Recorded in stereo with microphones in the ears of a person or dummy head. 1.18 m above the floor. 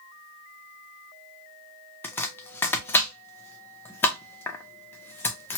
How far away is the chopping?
About 0.5 m.